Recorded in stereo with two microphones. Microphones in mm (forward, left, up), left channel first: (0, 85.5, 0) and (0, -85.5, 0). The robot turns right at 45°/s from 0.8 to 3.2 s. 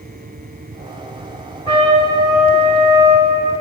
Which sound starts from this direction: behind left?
A trumpet, at 1.7 s.